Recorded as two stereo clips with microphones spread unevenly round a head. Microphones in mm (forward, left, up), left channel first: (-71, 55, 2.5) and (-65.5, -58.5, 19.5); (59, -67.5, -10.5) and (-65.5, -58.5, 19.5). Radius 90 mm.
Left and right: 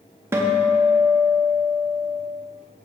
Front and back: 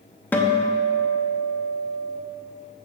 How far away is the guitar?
About 0.6 m.